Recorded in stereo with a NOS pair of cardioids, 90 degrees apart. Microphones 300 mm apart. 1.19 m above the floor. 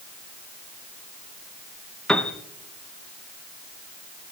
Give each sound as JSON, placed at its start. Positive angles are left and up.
{"t": 2.1, "sound": "a piano", "azimuth_deg": 5, "distance_m": 0.9}